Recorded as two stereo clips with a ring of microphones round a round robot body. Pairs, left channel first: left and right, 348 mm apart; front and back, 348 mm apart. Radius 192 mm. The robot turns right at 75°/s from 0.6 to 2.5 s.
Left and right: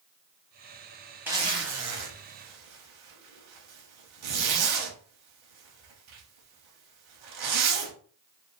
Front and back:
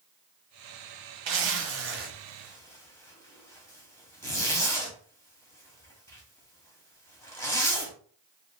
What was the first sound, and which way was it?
A zipper, 175° right.